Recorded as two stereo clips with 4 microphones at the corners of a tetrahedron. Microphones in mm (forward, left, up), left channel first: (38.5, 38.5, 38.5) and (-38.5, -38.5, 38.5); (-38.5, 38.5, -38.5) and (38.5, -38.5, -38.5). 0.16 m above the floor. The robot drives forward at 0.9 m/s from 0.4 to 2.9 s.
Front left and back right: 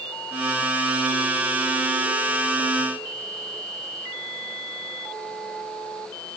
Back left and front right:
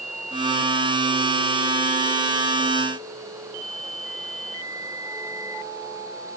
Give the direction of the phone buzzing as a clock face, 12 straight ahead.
No phone buzzing in this recording.